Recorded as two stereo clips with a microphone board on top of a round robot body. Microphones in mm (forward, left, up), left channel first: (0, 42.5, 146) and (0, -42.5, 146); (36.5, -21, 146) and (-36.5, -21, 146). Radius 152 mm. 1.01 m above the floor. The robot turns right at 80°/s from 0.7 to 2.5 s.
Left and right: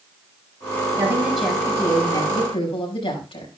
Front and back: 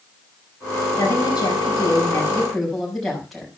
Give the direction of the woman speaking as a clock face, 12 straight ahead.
1 o'clock.